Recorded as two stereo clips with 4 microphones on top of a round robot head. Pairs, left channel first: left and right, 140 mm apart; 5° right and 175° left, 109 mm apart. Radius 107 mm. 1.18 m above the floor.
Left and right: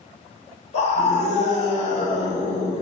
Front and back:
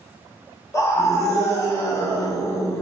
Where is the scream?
50° left, 1.4 m.